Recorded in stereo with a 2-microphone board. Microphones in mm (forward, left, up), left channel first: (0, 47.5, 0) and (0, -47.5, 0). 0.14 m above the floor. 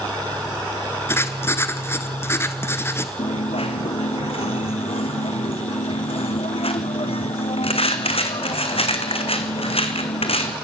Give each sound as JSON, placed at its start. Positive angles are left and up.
{"t": 1.1, "sound": "writing", "side_deg": 25, "distance_m": 1.0}
{"t": 3.2, "sound": "a dropped coin", "side_deg": 85, "distance_m": 1.5}